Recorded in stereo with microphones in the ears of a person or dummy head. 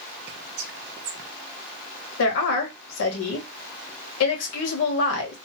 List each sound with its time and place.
0.3 s whispering: 55° right (ahead or behind), 0.6 m
2.2 s a woman speaking: 80° left, 1.4 m